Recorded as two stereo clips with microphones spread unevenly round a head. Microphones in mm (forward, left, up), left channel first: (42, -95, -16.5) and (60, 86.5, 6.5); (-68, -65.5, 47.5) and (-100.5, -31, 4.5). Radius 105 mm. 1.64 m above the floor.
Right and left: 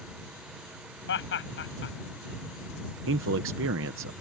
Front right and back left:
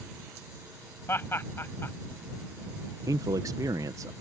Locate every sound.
1.1 s laughter: 75° right
3.1 s a man speaking: 90° left